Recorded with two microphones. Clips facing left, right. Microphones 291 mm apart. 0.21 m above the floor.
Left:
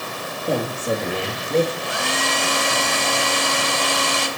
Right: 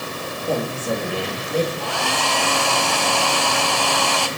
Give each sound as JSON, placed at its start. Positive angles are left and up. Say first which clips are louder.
{"t": 0.5, "sound": "a man speaking", "louder": "left 1 dB", "side_deg": 15, "distance_m": 4.5}
{"t": 1.8, "sound": "a hair dryer", "louder": "right 1 dB", "side_deg": 20, "distance_m": 1.4}